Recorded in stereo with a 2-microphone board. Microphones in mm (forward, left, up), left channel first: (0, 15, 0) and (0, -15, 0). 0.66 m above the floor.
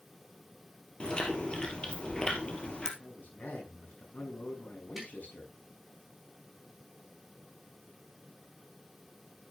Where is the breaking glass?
I don't hear breaking glass.